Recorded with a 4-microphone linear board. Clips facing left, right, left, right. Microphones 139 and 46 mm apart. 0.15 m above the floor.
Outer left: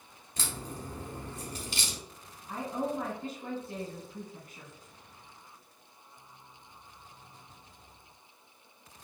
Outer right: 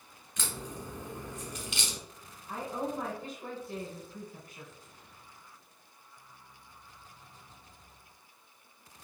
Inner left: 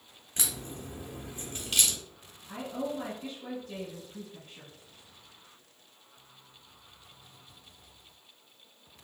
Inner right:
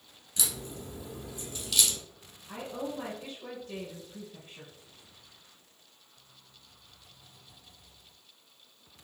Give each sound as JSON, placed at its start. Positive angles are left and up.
{"t": 0.4, "sound": "a crack", "side_deg": 35, "distance_m": 0.9}
{"t": 2.5, "sound": "a woman speaking", "side_deg": -10, "distance_m": 1.1}